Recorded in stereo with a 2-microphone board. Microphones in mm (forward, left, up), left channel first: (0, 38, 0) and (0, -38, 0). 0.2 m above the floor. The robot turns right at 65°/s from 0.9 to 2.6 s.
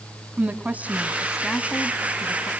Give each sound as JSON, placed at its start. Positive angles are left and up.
{"t": 0.4, "sound": "a woman speaking", "side_deg": -20, "distance_m": 1.6}